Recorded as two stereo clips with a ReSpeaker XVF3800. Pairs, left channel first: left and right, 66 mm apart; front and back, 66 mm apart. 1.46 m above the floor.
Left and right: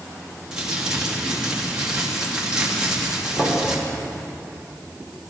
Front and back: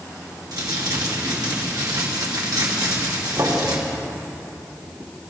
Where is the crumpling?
165° right, 2.5 m.